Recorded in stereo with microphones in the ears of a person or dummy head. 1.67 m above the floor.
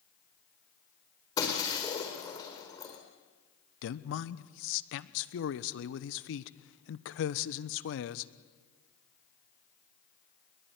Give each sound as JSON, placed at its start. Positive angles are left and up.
{"t": 1.4, "sound": "breaking glass", "side_deg": 25, "distance_m": 4.5}
{"t": 3.8, "sound": "a man speaking", "side_deg": 70, "distance_m": 1.0}